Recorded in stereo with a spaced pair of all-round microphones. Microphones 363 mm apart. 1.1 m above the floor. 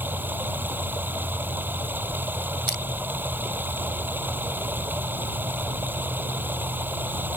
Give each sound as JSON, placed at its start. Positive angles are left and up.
{"t": 0.0, "sound": "running water", "side_deg": -5}
{"t": 2.7, "sound": "crushing", "side_deg": -80}